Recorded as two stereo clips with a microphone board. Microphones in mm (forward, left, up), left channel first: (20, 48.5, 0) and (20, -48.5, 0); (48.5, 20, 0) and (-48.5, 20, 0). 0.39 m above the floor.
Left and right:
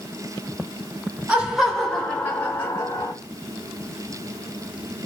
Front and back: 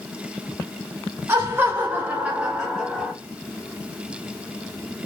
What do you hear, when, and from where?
1.3 s laughter: 155° right, 1.0 m; by 3.1 s 90° left, 1.1 m